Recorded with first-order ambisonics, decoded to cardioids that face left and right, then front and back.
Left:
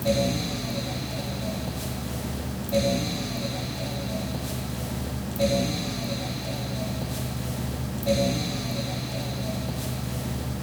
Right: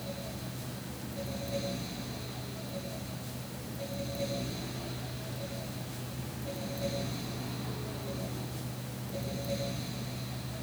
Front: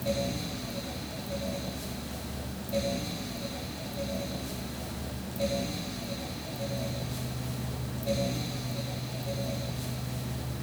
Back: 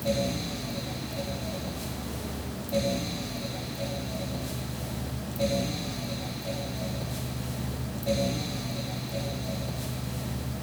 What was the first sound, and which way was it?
Only background noise.